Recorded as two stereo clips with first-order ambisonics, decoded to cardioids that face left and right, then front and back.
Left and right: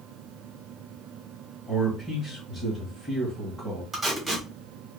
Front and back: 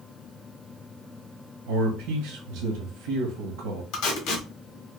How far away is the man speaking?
About 1.0 m.